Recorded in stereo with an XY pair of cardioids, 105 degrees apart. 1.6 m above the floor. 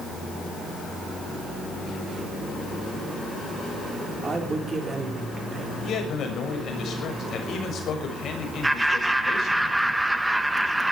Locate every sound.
4.2 s a man speaking: 35° right, 5 m
5.8 s a man speaking: 60° left, 6.5 m
8.6 s laughter: 10° right, 2.5 m